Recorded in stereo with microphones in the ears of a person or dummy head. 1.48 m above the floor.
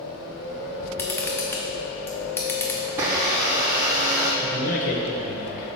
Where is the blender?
15° right (ahead or behind), 0.5 m.